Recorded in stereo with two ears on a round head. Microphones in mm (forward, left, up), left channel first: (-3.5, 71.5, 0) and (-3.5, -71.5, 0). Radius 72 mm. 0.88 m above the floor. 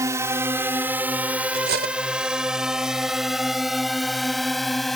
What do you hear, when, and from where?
0.0 s a drone: 20° right (ahead or behind); by 5.0 s centre (ahead or behind)
1.5 s cutlery clinking: 65° right (ahead or behind)